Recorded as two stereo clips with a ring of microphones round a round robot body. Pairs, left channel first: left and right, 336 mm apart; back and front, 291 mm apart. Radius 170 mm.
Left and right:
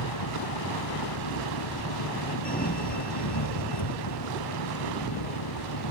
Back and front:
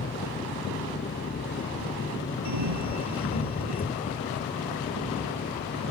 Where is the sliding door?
25° left.